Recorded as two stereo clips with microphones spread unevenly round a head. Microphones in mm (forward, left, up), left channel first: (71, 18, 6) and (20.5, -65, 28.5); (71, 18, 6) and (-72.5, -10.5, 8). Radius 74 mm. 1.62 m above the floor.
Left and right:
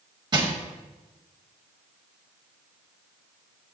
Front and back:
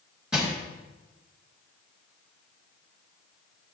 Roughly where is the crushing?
Right.